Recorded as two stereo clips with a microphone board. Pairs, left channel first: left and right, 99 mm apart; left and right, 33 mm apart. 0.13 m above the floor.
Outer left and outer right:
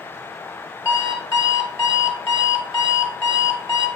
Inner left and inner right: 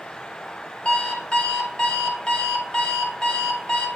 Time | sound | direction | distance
0.8 | an alarm clock | 30° left (ahead or behind) | 1.3 m